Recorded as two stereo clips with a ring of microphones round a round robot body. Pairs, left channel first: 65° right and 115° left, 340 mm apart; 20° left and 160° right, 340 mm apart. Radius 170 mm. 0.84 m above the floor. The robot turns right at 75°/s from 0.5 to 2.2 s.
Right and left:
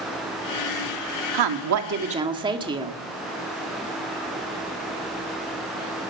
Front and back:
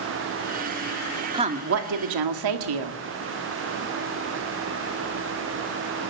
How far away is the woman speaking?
About 2 m.